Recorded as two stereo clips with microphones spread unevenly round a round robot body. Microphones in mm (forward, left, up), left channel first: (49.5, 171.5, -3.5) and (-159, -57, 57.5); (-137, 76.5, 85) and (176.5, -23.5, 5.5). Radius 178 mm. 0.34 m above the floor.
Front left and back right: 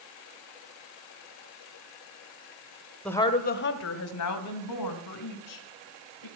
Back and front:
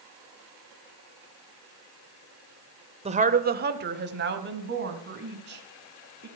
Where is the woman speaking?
20° right, 0.9 m; by 6.3 s 35° left, 3.5 m.